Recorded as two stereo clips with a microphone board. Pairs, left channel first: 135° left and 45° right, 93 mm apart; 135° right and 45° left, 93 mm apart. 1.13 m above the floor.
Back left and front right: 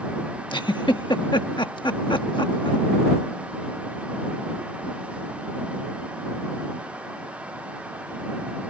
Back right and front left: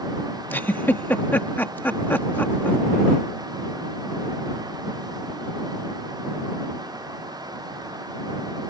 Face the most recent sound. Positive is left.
turn(degrees=160)